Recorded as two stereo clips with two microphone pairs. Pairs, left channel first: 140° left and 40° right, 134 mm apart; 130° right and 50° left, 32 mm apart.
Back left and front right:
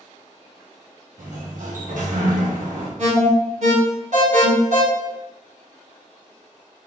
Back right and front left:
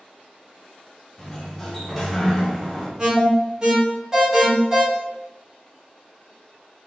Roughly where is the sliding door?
Ahead right.